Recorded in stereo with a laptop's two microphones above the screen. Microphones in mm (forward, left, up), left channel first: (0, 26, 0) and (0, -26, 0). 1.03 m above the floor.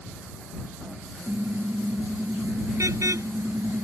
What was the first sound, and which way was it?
A car horn, 60° right (ahead or behind).